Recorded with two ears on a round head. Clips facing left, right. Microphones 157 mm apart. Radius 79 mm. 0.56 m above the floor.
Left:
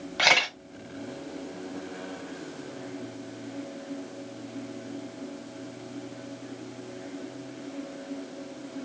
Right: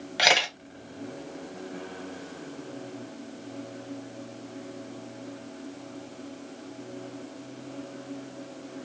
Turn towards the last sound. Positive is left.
turn(degrees=-20)  # may be behind; listen again after turning